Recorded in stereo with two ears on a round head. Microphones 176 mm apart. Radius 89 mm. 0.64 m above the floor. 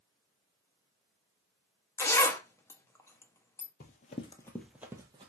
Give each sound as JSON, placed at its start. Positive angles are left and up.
{"t": 2.0, "sound": "a zipper", "side_deg": 15, "distance_m": 0.5}
{"t": 3.8, "sound": "running footsteps", "side_deg": 45, "distance_m": 0.8}